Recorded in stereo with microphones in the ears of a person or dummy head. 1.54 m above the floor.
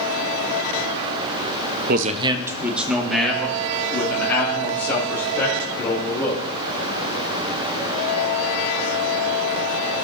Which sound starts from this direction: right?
A man speaking, at 1.9 s.